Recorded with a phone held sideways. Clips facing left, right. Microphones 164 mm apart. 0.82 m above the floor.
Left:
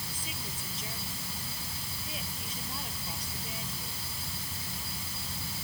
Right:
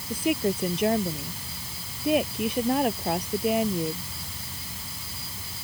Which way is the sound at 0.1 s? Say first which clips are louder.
Right 19 dB; 70° right (ahead or behind).